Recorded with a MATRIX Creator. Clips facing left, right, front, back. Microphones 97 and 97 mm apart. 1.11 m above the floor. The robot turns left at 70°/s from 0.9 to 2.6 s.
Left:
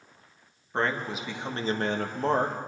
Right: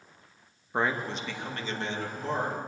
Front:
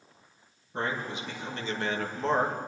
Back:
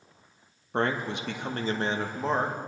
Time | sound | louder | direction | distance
0.7 | a man speaking | even, back 5 dB | 170° right | 1.2 m